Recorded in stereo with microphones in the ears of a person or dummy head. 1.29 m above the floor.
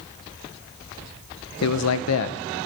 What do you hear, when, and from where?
1.6 s a man speaking: 85° left, 0.8 m